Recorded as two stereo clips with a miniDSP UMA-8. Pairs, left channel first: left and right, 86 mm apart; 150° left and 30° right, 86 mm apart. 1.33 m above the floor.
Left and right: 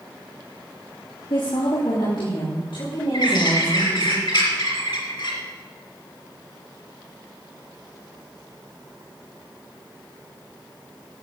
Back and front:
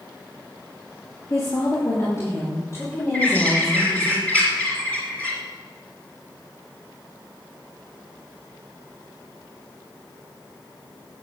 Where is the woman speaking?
100° left, 3 m; by 4.1 s 95° left, 6 m.